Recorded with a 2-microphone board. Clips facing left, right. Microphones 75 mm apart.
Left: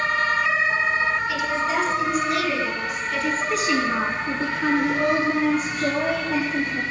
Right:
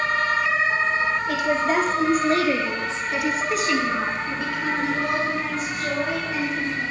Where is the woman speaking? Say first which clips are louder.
Right 2 dB; 55° right (ahead or behind), 3 m; by 6.8 s 65° left (ahead or behind), 4 m.